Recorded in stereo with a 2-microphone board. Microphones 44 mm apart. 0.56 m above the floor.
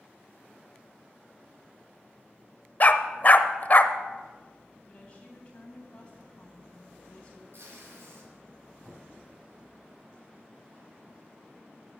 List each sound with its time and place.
2.8 s a dog barking: 40° left (ahead or behind), 0.6 m
4.9 s a woman speaking: 25° left (ahead or behind), 3.5 m
7.5 s tape being pulled: 75° right (ahead or behind), 5.5 m
8.8 s a cupboard door: 10° right (ahead or behind), 3 m